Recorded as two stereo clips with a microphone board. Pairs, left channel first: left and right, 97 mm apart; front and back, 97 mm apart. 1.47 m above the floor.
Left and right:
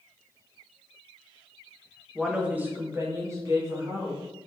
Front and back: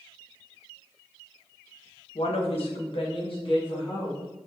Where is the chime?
No chime in this recording.